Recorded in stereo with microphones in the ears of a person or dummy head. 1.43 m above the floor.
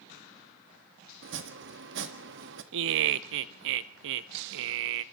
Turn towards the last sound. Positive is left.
turn(degrees=-65)  # may be behind; listen again after turning